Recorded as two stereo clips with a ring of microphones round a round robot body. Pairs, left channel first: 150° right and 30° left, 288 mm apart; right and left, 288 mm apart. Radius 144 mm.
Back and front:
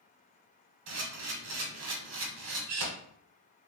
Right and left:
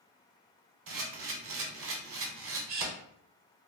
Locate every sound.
0.9 s a camera shutter: 50° left, 0.8 m